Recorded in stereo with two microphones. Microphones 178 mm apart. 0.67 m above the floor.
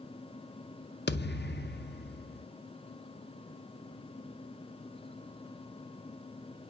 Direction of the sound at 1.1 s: 70° left (ahead or behind).